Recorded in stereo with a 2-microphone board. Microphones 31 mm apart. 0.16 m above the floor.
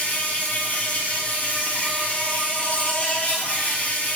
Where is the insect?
55° left (ahead or behind), 1.4 m.